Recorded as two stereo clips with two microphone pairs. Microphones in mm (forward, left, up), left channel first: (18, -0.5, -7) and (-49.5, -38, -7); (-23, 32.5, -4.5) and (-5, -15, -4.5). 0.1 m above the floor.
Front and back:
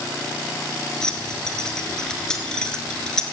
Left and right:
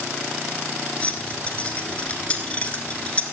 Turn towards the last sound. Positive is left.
turn(degrees=100)